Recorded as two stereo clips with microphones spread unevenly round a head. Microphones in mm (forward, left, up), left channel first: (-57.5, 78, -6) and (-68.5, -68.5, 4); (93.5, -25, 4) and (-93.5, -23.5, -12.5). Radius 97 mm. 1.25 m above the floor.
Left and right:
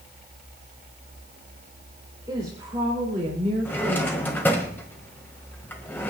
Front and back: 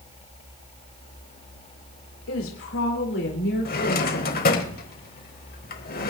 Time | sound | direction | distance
2.3 | a woman speaking | 20° right | 2.5 m
3.6 | a drawer | 5° left | 1.4 m